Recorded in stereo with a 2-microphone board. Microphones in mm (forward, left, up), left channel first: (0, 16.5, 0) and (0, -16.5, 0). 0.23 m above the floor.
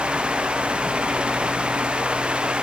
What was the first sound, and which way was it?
Only background noise.